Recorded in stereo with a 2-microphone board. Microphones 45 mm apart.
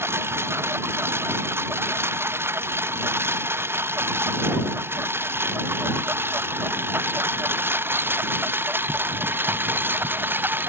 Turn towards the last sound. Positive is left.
turn(degrees=-45)  # may be behind; listen again after turning